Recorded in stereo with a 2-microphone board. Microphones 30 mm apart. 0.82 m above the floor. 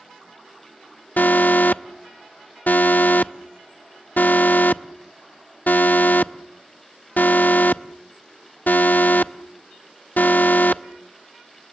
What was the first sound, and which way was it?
An alarm, 70° left (ahead or behind).